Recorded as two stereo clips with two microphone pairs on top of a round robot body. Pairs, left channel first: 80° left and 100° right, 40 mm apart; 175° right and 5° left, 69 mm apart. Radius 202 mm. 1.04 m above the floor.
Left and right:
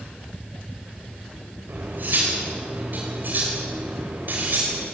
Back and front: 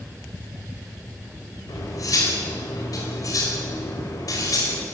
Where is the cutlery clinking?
140° right, 4 m.